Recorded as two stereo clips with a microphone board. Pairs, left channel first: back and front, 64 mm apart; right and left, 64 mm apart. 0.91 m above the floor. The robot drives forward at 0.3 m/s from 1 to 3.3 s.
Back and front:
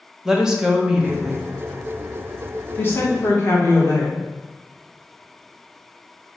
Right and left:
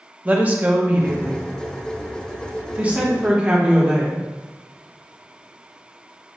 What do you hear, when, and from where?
0.2 s a woman speaking: 70° left, 0.7 m; by 4.2 s 155° left, 0.9 m